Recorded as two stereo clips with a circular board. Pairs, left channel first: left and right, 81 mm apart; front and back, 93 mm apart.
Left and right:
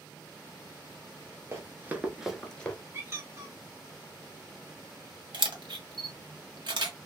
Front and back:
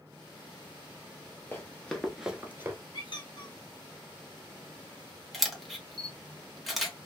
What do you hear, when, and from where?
1.5 s running footsteps: 60° right, 1.1 m; by 2.8 s 145° left, 0.9 m
2.9 s a squeak: 35° right, 0.9 m
5.3 s a camera shutter: 90° right, 1.1 m